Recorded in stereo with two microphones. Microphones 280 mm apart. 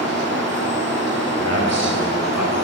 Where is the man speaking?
85° left, 6 m.